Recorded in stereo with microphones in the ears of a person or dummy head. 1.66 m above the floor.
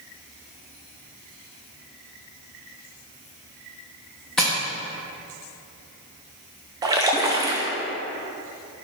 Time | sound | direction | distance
4.4 | tapping | 5° left (ahead or behind) | 1.1 m
6.8 | a splash | 20° right (ahead or behind) | 0.8 m